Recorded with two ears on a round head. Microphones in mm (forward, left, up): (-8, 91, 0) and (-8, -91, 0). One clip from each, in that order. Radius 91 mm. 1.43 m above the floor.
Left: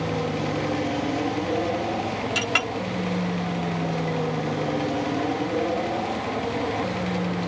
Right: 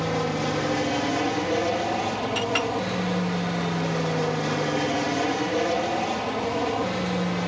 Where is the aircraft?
40° right (ahead or behind); by 7.5 s 65° right (ahead or behind).